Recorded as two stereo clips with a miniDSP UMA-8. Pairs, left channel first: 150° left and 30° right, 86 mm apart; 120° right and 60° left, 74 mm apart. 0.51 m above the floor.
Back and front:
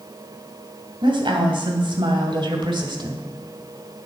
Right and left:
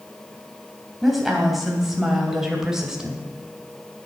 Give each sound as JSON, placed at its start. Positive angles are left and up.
{"t": 1.0, "sound": "a woman speaking", "azimuth_deg": -30, "distance_m": 3.0}